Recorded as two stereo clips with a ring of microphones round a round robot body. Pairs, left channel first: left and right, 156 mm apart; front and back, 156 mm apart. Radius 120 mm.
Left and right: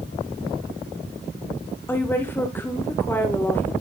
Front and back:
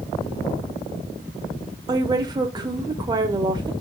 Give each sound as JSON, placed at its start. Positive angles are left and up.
{"t": 1.9, "sound": "a woman speaking", "azimuth_deg": 155, "distance_m": 1.0}